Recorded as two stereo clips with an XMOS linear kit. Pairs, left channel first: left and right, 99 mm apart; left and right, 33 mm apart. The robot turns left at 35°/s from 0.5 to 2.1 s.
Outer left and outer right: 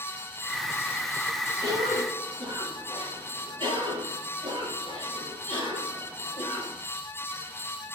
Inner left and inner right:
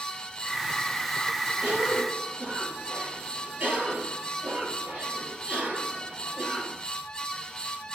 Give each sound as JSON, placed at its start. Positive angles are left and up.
{"t": 1.6, "sound": "a cough", "side_deg": -45, "distance_m": 4.5}